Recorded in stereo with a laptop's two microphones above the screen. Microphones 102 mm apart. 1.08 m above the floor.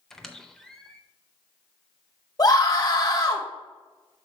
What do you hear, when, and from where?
0.1 s a squeak: 5° left (ahead or behind), 0.5 m
2.4 s a scream: 40° left (ahead or behind), 1.4 m